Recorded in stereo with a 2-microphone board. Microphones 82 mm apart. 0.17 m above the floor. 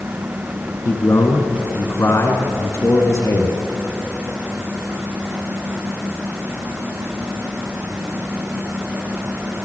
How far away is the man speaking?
About 2 m.